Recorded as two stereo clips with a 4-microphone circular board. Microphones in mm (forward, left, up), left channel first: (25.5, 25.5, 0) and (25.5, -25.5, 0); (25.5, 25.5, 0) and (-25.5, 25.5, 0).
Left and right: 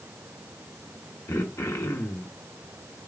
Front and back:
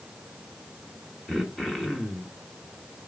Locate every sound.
1.3 s throat clearing: 80° left, 1.3 m